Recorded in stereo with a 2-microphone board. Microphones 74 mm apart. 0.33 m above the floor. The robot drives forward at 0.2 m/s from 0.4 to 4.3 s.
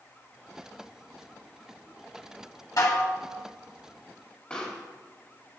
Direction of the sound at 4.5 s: 15° left (ahead or behind).